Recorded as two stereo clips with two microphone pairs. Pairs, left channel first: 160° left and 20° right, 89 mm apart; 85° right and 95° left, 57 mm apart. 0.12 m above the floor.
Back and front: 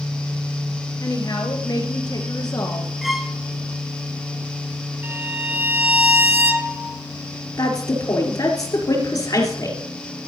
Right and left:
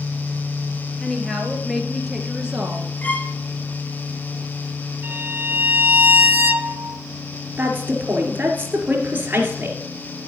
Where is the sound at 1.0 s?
170° right, 2.0 m; by 2.9 s 155° left, 1.6 m.